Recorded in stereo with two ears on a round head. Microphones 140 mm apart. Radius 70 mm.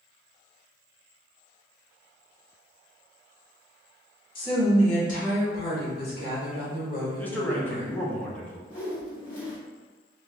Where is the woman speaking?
35° left (ahead or behind), 1.1 m; by 7.9 s 50° left (ahead or behind), 1.9 m.